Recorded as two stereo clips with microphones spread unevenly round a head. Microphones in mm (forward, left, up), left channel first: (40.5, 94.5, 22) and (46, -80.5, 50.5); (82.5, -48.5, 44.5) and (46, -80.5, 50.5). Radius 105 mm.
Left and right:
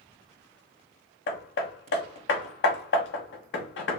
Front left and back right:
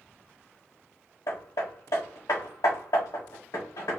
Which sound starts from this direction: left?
Hammering, at 1.3 s.